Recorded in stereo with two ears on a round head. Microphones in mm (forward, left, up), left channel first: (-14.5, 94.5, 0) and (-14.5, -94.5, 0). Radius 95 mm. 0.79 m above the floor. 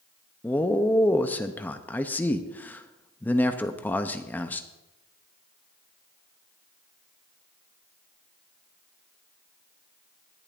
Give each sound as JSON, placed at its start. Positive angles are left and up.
{"t": 0.4, "sound": "a man speaking", "side_deg": 10, "distance_m": 0.6}